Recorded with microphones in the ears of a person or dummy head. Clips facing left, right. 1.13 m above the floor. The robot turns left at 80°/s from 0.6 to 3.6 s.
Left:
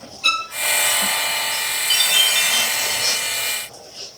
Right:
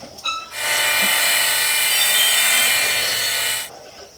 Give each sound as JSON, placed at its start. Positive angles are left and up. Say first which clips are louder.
{"t": 0.2, "sound": "a violin", "louder": "left 3 dB", "side_deg": 35, "distance_m": 1.1}
{"t": 1.9, "sound": "a chime", "louder": "left 2 dB", "azimuth_deg": 80, "distance_m": 2.5}